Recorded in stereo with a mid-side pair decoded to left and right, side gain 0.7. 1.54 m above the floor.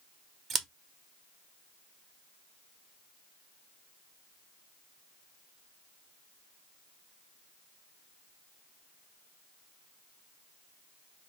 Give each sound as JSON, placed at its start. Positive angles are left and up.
{"t": 0.5, "sound": "scissors", "azimuth_deg": -35, "distance_m": 0.8}